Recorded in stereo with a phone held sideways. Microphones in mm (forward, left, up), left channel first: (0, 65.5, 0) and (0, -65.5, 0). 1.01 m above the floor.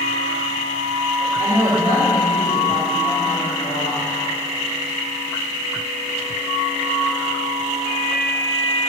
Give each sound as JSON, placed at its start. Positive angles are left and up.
{"t": 1.4, "sound": "a woman speaking", "side_deg": 65, "distance_m": 3.5}